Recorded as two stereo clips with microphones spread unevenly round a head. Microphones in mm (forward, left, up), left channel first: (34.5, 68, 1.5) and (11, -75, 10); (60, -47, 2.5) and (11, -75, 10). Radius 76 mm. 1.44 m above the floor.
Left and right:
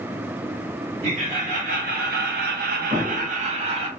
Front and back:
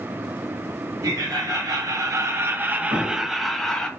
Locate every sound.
1.0 s laughter: 150° right, 1.1 m; by 3.9 s 45° right, 0.9 m
2.9 s an explosion: 155° right, 1.0 m